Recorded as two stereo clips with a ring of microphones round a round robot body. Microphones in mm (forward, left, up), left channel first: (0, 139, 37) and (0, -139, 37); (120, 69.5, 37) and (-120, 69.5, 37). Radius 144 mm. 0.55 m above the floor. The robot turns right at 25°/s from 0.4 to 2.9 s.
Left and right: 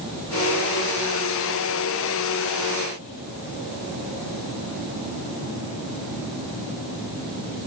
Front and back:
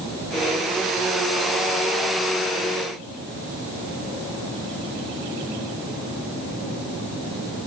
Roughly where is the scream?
I don't hear a scream.